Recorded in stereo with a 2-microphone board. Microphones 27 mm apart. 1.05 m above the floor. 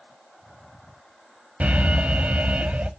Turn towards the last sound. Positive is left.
turn(degrees=-65)  # may be behind; listen again after turning